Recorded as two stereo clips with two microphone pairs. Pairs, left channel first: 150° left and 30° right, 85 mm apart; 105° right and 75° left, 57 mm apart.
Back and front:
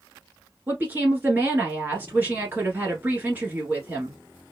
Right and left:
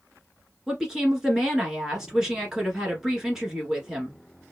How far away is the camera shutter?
No camera shutter in this recording.